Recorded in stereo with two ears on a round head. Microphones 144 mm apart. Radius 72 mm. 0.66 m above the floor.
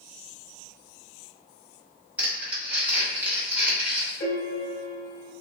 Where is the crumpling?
10° right (ahead or behind), 1.2 m.